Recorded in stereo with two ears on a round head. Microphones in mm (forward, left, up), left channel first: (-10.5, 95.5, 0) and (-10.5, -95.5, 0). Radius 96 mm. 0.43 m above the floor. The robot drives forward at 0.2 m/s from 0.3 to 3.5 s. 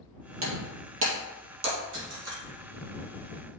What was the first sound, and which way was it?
Breaking glass, 75° right (ahead or behind).